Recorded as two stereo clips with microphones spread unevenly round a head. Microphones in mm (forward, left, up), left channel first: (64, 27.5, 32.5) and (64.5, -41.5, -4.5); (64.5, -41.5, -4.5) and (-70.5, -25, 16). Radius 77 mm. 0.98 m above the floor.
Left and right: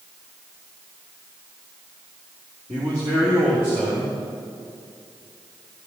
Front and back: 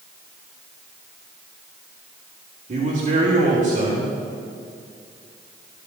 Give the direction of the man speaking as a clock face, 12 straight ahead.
5 o'clock.